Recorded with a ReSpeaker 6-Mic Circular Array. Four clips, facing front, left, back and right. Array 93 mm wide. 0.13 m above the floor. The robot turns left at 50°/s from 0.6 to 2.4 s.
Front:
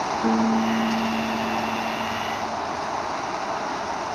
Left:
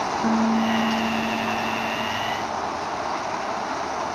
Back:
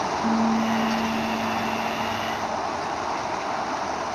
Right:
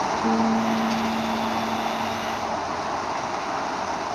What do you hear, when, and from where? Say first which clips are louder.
0.2 s a piano: left 2 dB, front 2 dB; 40° left, 3 m; by 2.6 s 50° right, 3 m